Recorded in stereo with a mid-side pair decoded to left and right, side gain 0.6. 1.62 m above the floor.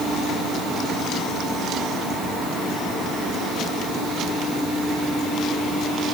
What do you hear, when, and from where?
Only background noise.